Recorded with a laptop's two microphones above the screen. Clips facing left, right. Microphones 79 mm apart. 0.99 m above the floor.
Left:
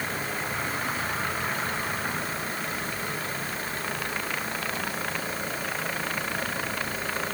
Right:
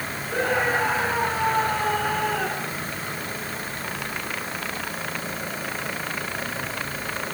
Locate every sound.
0.3 s a scream: 75° right (ahead or behind)